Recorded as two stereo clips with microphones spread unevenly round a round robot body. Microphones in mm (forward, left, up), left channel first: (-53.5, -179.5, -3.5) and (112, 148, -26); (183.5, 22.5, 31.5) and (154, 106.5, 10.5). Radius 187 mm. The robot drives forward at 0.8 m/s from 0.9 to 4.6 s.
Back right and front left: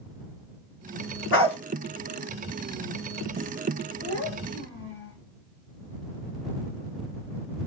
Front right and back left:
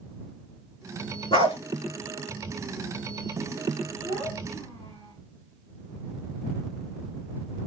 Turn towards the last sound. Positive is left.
turn(degrees=-175)